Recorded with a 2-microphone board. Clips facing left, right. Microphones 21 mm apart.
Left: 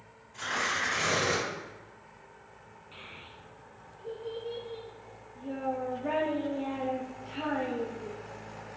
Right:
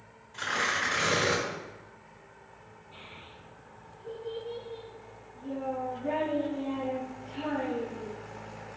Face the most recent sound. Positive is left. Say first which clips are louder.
# left 1 dB
turn(degrees=45)  # may be behind; listen again after turning